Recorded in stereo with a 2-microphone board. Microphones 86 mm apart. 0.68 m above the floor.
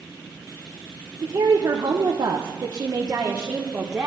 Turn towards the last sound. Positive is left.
turn(degrees=-10)  # may be behind; listen again after turning